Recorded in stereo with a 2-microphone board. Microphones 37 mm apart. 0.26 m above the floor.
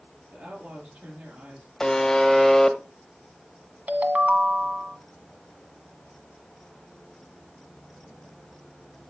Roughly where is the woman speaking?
Right.